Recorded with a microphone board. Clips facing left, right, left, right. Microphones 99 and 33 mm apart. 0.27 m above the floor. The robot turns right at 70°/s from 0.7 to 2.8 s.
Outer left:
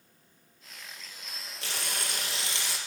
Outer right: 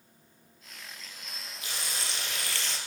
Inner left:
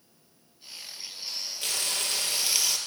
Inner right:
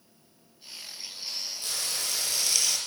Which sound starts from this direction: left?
Frying, at 1.6 s.